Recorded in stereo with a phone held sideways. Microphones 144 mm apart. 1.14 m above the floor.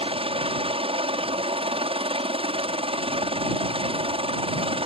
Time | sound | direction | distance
0.0 | a helicopter | 40° right (ahead or behind) | ?